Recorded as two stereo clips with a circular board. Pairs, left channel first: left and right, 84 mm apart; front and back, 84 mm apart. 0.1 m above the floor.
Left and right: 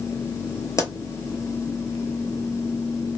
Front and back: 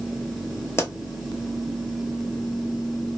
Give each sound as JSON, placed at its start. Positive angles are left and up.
{"t": 0.8, "sound": "a pop", "azimuth_deg": 50, "distance_m": 0.6}